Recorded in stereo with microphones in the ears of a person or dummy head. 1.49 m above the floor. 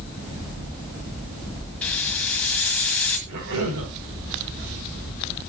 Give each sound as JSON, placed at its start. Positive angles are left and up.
{"t": 1.8, "sound": "a hiss", "side_deg": 10, "distance_m": 1.5}
{"t": 3.3, "sound": "a cough", "side_deg": -80, "distance_m": 5.5}